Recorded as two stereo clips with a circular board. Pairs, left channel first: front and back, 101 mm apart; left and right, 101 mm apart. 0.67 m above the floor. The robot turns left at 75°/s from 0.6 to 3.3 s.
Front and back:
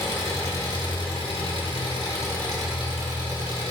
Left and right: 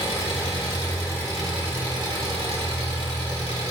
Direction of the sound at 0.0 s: 60° left.